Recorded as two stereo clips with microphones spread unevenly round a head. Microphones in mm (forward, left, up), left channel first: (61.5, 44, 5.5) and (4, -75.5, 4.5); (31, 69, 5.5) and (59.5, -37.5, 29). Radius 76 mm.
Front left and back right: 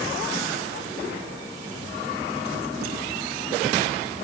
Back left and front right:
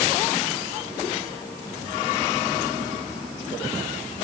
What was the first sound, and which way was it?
Only background noise.